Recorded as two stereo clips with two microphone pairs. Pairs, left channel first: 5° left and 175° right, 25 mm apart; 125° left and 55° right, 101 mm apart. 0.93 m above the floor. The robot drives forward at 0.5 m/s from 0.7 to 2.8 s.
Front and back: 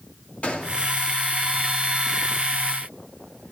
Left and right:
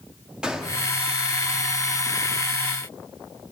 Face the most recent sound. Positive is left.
turn(degrees=45)